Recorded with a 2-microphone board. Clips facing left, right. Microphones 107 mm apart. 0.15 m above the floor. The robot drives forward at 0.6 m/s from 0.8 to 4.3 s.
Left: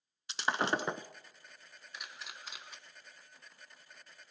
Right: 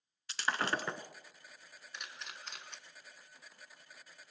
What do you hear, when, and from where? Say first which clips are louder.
0.3 s breaking glass: left 3 dB; 20° left (ahead or behind), 0.5 m; by 1.1 s 15° left (ahead or behind), 0.6 m
1.9 s a camera shutter: even; 5° left (ahead or behind), 1.1 m